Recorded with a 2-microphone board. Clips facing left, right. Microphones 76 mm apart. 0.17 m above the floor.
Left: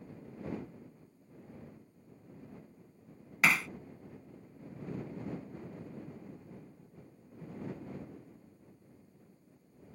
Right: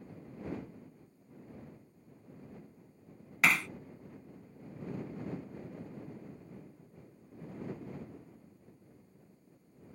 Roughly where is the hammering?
Centre.